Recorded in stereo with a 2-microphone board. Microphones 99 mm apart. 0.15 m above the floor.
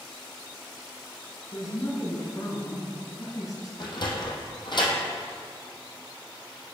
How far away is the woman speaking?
About 1.7 m.